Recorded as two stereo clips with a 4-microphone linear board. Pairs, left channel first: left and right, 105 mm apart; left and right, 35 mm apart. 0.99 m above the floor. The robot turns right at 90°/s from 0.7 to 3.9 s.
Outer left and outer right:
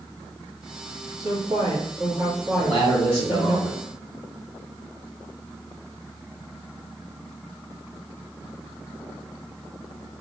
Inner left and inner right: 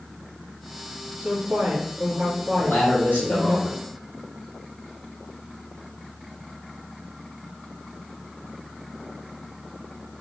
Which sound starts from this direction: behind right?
A woman speaking, at 1.2 s.